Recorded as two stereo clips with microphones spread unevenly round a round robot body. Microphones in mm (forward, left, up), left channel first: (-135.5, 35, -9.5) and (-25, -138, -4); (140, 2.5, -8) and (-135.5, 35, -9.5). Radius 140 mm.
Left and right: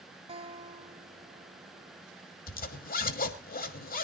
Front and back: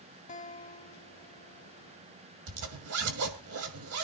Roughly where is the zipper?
Behind left.